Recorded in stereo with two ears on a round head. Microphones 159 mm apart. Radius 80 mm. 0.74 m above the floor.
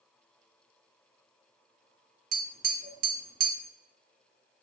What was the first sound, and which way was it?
Tapping, 50° right (ahead or behind).